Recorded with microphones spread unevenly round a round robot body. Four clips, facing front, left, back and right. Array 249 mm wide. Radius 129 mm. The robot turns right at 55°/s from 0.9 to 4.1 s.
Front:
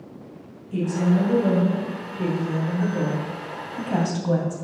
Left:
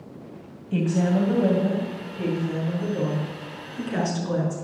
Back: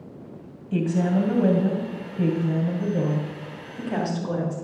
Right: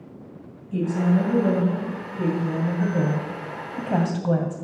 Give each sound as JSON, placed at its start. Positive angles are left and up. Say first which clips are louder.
{"t": 0.7, "sound": "a woman speaking", "louder": "even, even", "azimuth_deg": 120, "distance_m": 3.0}